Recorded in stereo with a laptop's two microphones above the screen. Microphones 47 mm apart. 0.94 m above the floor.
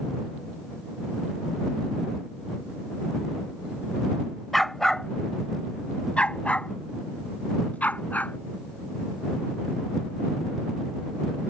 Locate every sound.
4.5 s a dog barking: centre (ahead or behind); by 8.4 s 35° left (ahead or behind)